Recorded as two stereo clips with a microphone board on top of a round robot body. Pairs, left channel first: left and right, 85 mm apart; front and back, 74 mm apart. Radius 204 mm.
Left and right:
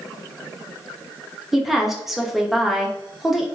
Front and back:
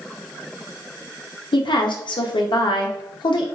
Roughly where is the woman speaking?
Ahead.